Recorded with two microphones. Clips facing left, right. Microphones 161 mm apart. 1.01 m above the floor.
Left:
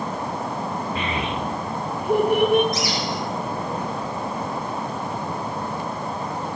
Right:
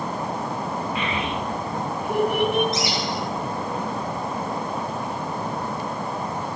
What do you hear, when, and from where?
0.9 s a child speaking: 35° left (ahead or behind), 1.9 m
2.7 s a bird: 25° right (ahead or behind), 3 m